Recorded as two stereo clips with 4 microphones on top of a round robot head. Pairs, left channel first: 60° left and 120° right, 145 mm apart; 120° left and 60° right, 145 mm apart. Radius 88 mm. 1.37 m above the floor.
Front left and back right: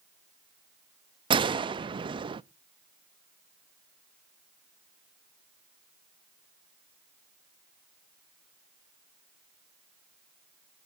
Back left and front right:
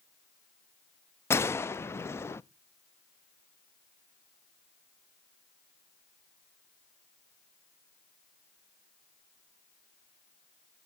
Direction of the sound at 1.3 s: 170° right.